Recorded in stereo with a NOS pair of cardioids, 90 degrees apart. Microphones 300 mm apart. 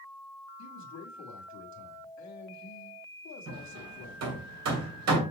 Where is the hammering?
60° right, 2.5 m.